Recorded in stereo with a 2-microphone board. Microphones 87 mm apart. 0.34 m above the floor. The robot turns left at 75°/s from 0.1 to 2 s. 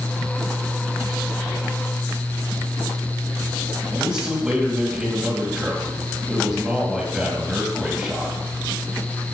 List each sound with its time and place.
3.9 s a man speaking: 5° right (ahead or behind), 2.5 m